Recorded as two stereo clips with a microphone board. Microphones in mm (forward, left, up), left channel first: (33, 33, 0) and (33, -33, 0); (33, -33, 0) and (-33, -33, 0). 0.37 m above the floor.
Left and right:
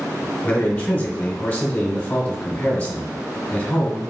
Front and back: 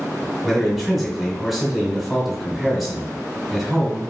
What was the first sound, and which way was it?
A man speaking, 105° left.